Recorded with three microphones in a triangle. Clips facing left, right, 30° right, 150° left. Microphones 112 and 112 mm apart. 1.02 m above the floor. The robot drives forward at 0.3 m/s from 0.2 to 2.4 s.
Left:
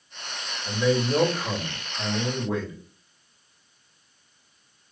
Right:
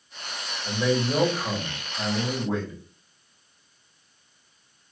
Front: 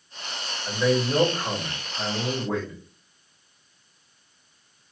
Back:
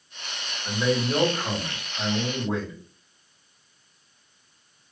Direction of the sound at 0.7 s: 130° right.